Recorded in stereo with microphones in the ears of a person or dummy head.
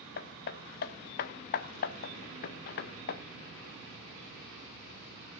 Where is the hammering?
55° left (ahead or behind), 0.7 m.